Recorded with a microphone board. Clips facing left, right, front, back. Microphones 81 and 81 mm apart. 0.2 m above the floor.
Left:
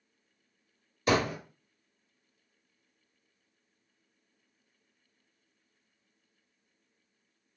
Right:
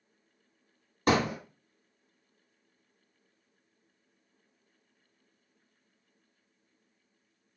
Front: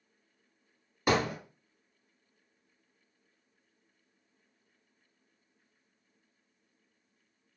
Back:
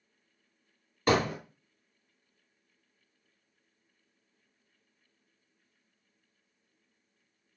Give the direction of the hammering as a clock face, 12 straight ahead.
3 o'clock.